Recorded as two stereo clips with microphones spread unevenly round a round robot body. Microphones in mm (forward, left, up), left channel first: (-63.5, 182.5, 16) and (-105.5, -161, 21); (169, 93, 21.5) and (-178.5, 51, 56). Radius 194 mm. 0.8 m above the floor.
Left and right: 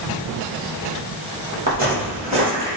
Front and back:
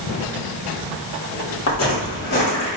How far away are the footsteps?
About 1.1 m.